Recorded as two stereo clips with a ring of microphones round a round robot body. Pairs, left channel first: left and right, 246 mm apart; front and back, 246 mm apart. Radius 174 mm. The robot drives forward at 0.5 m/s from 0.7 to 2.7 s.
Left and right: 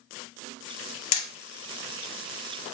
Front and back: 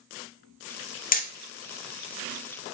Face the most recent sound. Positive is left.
turn(degrees=125)